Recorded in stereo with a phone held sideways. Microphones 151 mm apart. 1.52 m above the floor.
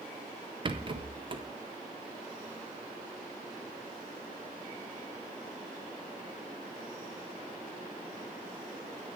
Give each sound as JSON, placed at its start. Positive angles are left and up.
{"t": 0.7, "sound": "a rattle", "side_deg": -35, "distance_m": 0.6}